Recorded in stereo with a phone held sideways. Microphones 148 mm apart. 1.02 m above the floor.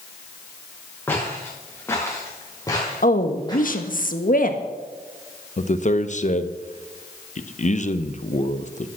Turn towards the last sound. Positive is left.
turn(degrees=50)  # may be behind; listen again after turning